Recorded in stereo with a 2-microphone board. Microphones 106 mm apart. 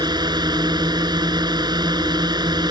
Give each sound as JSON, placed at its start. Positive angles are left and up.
{"t": 0.0, "sound": "a drone", "side_deg": -45}